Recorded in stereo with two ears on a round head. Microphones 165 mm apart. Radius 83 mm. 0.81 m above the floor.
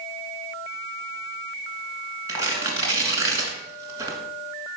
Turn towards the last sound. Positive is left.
turn(degrees=-15)  # may be behind; listen again after turning